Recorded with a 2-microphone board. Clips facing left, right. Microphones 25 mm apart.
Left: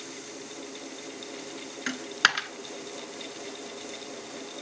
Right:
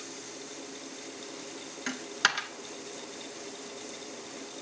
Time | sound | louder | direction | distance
1.9 | a dropped coin | left 4 dB | 20° left (ahead or behind) | 0.6 m